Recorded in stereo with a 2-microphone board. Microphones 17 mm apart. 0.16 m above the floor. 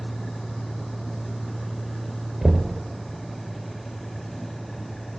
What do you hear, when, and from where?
2.4 s knocking: 40° right (ahead or behind), 1.8 m